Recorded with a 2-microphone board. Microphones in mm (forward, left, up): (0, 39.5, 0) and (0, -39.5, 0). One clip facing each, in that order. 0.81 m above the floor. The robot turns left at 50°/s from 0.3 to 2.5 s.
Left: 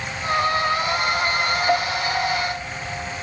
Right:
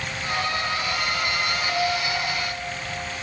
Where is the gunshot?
No gunshot in this recording.